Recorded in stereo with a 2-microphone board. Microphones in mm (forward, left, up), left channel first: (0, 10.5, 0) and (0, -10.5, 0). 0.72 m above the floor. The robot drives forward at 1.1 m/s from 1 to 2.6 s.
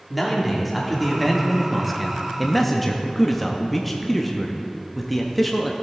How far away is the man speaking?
About 1.5 m.